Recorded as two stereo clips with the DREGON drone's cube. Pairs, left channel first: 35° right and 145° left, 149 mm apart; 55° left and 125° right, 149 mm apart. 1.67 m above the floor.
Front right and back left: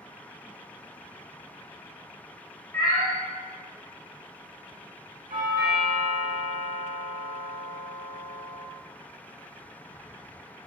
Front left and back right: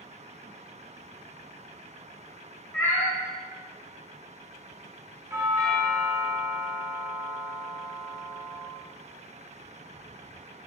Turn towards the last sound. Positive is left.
turn(degrees=170)